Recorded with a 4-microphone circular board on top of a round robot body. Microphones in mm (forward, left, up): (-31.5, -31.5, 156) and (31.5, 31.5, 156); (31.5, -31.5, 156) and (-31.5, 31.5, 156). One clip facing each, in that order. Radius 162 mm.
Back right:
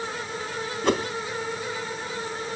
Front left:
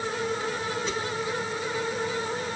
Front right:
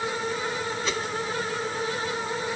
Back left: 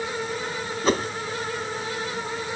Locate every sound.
0.8 s a whoosh: 175° right